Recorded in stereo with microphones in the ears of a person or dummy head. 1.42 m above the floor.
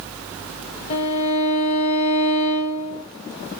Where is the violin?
40° left (ahead or behind), 1.7 m.